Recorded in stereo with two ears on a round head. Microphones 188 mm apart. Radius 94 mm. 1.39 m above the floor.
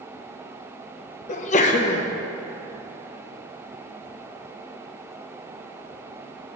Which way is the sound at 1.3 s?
35° left (ahead or behind).